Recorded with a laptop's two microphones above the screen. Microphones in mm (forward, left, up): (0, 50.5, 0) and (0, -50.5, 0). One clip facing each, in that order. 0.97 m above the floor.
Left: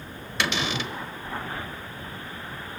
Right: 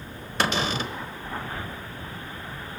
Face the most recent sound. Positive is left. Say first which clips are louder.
# right 2 dB
turn(degrees=-40)  # may be behind; listen again after turning